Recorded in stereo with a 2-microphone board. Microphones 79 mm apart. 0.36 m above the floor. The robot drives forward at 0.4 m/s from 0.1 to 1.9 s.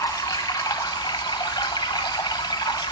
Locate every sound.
0.0 s running water: 50° left (ahead or behind), 0.9 m; by 2.9 s 70° left (ahead or behind), 0.8 m